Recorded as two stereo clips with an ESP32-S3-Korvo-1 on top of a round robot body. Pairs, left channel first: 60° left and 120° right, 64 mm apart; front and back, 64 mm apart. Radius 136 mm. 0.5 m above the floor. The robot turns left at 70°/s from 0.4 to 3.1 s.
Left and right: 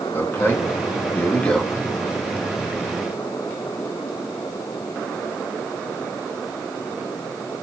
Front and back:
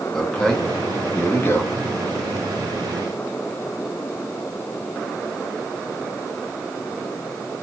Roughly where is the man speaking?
Left.